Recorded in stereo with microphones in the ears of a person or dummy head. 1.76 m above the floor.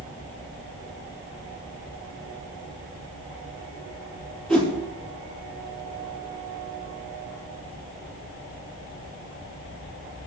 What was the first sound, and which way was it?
A whoosh, 5° left (ahead or behind).